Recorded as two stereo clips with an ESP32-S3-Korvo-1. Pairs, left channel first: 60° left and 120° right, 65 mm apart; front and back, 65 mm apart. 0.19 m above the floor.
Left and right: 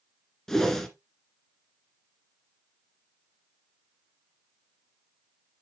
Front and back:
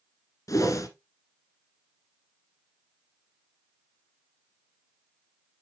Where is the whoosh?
25° right, 1.5 m.